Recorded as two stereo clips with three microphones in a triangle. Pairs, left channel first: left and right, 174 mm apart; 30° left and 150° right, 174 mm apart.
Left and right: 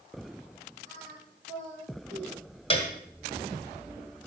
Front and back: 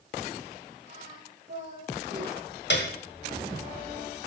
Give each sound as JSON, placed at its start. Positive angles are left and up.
{"t": 0.9, "sound": "singing", "azimuth_deg": -140, "distance_m": 9.0}
{"t": 2.7, "sound": "a piano", "azimuth_deg": 35, "distance_m": 1.9}